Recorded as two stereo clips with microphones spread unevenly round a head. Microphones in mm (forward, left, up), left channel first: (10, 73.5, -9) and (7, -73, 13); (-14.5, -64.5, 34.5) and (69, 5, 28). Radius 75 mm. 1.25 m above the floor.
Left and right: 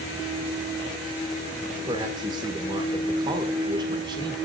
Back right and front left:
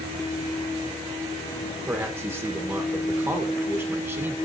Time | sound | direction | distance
1.9 | a man speaking | 30° right | 1.3 m